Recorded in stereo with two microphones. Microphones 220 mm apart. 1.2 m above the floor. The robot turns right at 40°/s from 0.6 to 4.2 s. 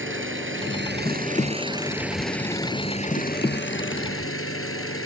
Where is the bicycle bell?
No bicycle bell in this recording.